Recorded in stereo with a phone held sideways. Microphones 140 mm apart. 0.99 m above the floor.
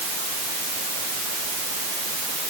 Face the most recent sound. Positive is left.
No sound to turn to.